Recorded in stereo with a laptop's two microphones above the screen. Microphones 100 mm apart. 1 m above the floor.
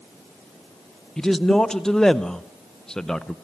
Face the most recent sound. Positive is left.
turn(degrees=5)  # may be behind; listen again after turning